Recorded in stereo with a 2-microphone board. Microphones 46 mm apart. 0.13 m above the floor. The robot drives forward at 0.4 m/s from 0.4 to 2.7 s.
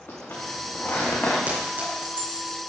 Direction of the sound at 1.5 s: 40° right (ahead or behind).